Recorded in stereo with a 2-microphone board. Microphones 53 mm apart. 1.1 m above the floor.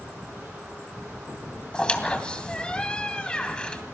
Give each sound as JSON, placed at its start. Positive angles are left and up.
{"t": 1.7, "sound": "a squeak", "side_deg": 20, "distance_m": 2.5}